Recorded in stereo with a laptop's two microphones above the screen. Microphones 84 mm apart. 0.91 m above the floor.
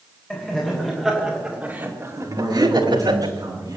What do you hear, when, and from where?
0.3 s laughter: 15° left (ahead or behind), 3.5 m; by 3.3 s 85° right, 2 m
2.3 s a man speaking: 45° right (ahead or behind), 10 m